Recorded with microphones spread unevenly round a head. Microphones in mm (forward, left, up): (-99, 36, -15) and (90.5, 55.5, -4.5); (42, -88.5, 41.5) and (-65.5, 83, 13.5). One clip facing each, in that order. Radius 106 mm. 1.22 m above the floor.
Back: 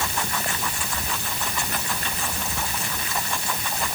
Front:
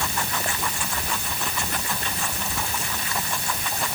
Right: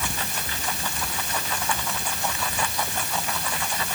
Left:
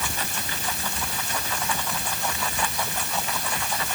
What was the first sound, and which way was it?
Only background noise.